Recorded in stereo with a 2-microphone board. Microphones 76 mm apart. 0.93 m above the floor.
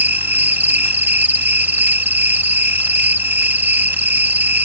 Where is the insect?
25° right (ahead or behind).